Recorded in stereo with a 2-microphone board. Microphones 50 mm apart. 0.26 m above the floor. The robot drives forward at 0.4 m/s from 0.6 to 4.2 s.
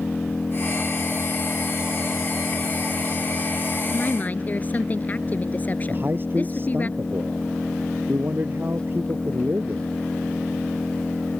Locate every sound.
0.0 s an engine running: 20° left (ahead or behind)
3.9 s a woman speaking: 30° left (ahead or behind)
5.9 s a man speaking: 40° right (ahead or behind)